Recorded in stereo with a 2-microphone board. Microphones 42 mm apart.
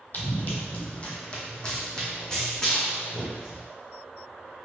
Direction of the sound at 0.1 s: 40° left (ahead or behind).